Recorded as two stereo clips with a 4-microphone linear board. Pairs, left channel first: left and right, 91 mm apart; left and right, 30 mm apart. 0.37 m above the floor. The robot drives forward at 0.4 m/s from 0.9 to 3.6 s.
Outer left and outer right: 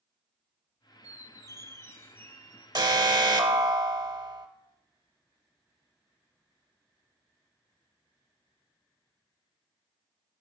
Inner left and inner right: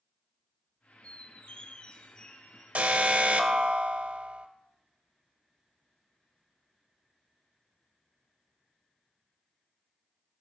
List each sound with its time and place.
1.0 s a squeak: 45° left (ahead or behind), 0.5 m; by 2.6 s 20° left (ahead or behind), 1.0 m
2.8 s an alarm: 50° right (ahead or behind), 0.8 m